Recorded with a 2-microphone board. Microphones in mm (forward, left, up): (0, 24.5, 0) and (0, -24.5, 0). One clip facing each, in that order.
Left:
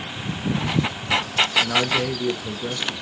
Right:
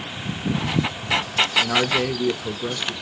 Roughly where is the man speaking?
Centre.